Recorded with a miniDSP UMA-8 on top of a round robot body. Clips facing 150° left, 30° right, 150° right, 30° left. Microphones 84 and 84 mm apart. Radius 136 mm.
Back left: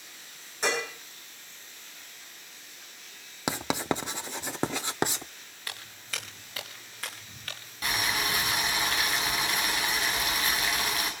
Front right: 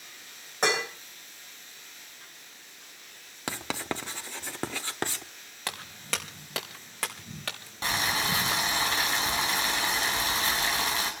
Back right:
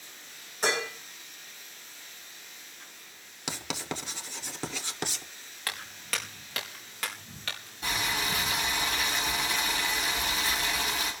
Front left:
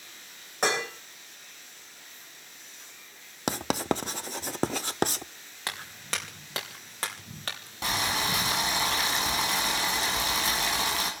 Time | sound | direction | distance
0.6 | dishes clattering | straight ahead | 9.5 m
3.5 | writing | 75° left | 0.8 m
5.7 | footsteps | 35° right | 3.5 m
7.8 | boiling | 30° left | 7.5 m